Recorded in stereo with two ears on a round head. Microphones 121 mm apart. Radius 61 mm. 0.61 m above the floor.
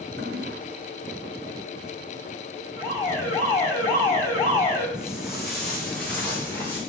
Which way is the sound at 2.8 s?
15° left (ahead or behind).